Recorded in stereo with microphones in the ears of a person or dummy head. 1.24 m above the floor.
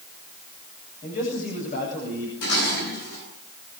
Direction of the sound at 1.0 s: 40° left (ahead or behind).